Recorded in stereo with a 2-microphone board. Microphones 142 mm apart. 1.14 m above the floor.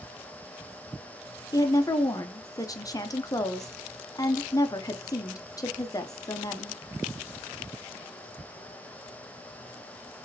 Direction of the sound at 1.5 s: 25° left (ahead or behind).